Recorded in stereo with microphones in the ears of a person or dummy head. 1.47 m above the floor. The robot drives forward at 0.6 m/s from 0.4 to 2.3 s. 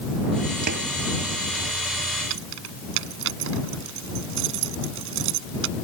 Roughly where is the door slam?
Right.